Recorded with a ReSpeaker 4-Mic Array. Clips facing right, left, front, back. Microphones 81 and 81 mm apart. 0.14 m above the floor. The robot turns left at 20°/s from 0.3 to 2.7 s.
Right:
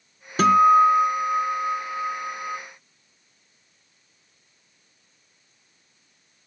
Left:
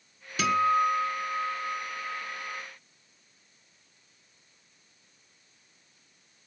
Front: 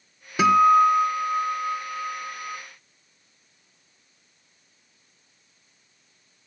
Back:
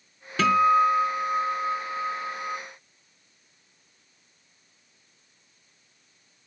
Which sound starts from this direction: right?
A guitar, at 0.4 s.